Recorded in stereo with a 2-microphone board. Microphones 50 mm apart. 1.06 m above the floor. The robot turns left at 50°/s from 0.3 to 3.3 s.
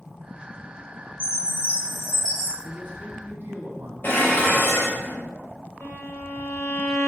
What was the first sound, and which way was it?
A chime, 125° right.